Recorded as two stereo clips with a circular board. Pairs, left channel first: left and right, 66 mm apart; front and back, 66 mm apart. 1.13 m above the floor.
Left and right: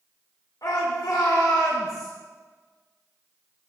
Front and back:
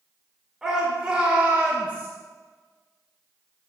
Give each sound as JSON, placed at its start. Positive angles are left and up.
{"t": 0.6, "sound": "a shout", "azimuth_deg": 100, "distance_m": 3.0}